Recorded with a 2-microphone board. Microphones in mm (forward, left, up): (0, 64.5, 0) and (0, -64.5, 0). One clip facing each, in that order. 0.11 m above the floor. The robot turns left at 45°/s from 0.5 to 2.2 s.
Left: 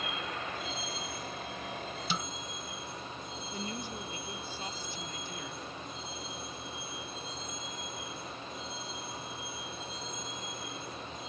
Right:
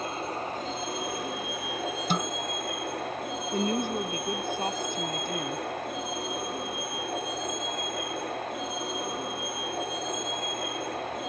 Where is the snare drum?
55° right (ahead or behind).